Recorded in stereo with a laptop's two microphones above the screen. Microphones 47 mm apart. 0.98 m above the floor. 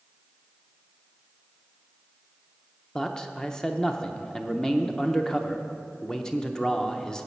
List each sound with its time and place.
3.0 s a man speaking: 15° left (ahead or behind), 0.7 m